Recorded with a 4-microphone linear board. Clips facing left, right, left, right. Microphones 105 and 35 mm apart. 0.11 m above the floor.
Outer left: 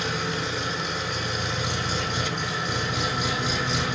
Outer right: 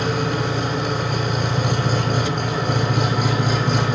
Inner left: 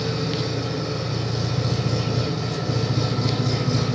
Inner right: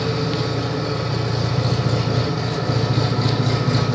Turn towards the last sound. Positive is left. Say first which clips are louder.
# outer right 7 dB, inner right 3 dB
turn(degrees=-50)  # may be behind; listen again after turning